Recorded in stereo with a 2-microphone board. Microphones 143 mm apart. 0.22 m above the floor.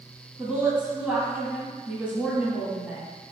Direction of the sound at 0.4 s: 10° right (ahead or behind).